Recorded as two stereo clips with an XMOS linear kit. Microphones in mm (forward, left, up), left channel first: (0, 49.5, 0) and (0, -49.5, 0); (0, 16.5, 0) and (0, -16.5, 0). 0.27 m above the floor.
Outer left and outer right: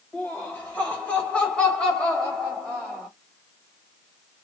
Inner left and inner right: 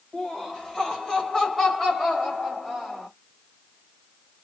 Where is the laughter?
20° left (ahead or behind), 1.5 m; by 3.1 s centre (ahead or behind), 1.7 m.